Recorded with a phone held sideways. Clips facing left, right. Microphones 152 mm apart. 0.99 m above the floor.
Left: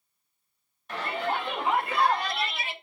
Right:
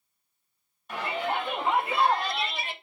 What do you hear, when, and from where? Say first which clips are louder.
0.9 s a shout: even; centre (ahead or behind), 5.5 m